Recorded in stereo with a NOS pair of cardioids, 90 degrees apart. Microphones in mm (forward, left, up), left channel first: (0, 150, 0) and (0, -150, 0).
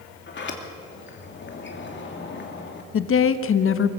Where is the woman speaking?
45° left, 1.3 m.